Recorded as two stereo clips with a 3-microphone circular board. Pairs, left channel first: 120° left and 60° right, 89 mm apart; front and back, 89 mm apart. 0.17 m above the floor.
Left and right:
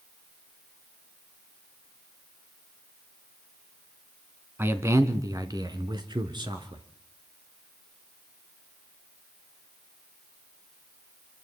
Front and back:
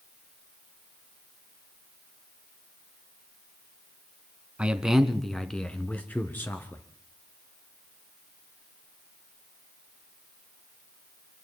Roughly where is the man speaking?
Right.